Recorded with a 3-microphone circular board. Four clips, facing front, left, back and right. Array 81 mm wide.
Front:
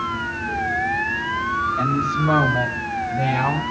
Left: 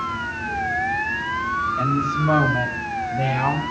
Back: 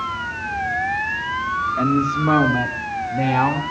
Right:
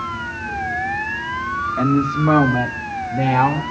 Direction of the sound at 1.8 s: 115° right.